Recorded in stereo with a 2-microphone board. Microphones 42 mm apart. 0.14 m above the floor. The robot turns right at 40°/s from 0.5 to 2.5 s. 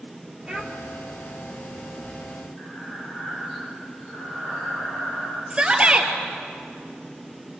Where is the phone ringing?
No phone ringing in this recording.